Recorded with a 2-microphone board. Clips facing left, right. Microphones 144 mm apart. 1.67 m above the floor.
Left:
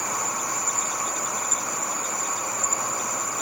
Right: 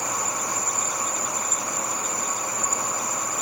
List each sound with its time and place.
0.0 s an insect: 5° left (ahead or behind), 1.3 m